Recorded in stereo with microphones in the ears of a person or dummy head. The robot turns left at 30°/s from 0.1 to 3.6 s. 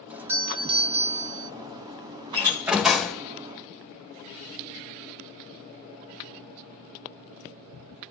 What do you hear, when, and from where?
0.1 s a doorbell: 5° right, 0.7 m; by 1.5 s 45° right, 0.7 m
2.3 s a door slam: 15° right (ahead or behind), 0.8 m; by 3.2 s 5° left (ahead or behind), 0.8 m